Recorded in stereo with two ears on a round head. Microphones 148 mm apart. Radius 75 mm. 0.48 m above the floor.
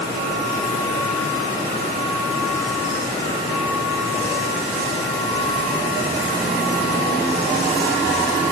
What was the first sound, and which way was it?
Only background noise.